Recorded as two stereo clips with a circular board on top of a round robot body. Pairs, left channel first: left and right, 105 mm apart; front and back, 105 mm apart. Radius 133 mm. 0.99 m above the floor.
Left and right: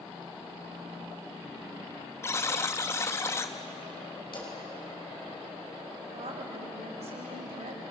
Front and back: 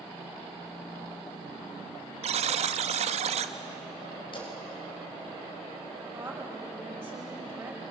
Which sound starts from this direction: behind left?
A buzzer, at 2.2 s.